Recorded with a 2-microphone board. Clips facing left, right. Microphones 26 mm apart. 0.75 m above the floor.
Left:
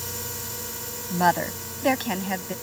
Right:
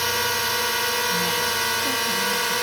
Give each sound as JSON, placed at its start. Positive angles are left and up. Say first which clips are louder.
{"t": 0.0, "sound": "a drone", "louder": "right 13 dB", "side_deg": -50}
{"t": 1.1, "sound": "a woman speaking", "louder": "even", "side_deg": 60}